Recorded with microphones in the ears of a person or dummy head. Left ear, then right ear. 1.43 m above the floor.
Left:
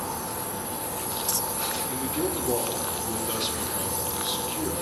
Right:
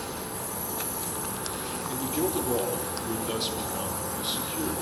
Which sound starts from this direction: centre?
A man speaking, at 1.9 s.